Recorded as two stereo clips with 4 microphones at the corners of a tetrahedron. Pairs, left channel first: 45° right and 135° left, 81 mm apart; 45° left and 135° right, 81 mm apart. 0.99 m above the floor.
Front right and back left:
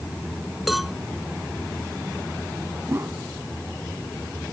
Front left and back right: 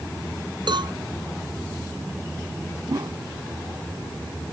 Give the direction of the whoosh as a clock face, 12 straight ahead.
6 o'clock.